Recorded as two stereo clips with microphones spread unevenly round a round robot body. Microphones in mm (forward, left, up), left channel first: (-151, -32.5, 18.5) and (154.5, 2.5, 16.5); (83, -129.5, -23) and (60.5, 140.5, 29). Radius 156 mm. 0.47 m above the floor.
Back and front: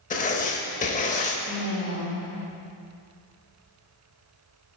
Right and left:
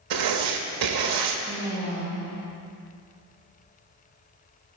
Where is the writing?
120° left, 0.6 m.